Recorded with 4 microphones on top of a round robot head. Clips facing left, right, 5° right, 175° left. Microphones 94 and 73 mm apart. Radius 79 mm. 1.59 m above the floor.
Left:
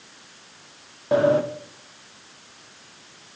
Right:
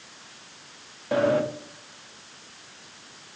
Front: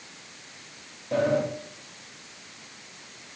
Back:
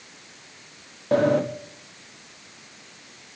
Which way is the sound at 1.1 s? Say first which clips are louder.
Left 4 dB, back 4 dB; 150° left.